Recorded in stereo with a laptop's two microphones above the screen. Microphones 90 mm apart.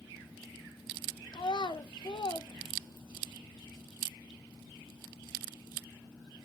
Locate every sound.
1.3 s a child speaking: 55° left (ahead or behind), 0.6 m